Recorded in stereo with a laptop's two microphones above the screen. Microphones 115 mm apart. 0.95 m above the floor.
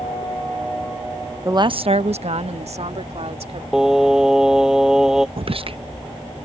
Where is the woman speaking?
25° right (ahead or behind); by 3.6 s 65° right (ahead or behind).